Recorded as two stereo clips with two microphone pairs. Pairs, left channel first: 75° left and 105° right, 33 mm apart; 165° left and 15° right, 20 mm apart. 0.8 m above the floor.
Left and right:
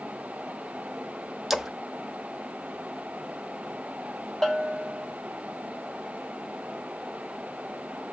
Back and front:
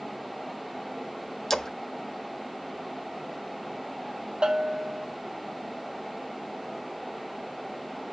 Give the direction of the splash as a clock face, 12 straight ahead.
6 o'clock.